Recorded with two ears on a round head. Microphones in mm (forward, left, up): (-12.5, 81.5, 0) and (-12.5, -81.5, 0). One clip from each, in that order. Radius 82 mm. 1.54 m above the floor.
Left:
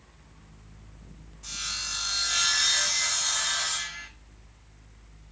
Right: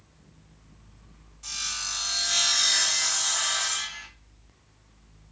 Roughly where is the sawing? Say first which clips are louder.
Right 1 dB; centre.